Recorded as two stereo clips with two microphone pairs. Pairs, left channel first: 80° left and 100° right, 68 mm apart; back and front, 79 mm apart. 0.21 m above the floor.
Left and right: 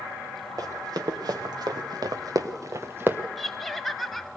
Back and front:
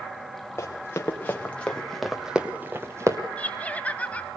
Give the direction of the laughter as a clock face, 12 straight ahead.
7 o'clock.